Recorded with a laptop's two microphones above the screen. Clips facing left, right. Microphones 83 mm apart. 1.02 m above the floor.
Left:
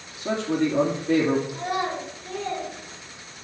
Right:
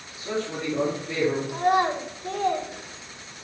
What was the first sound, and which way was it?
A man speaking, 75° left (ahead or behind).